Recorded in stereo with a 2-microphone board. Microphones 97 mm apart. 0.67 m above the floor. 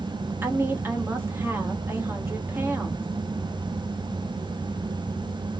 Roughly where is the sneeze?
I don't hear a sneeze.